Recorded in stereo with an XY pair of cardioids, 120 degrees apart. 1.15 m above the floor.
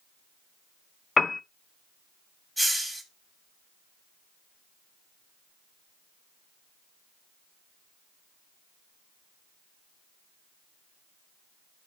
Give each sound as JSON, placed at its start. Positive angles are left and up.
{"t": 1.2, "sound": "a piano", "azimuth_deg": 25, "distance_m": 0.6}
{"t": 2.6, "sound": "a hiss", "azimuth_deg": -10, "distance_m": 3.0}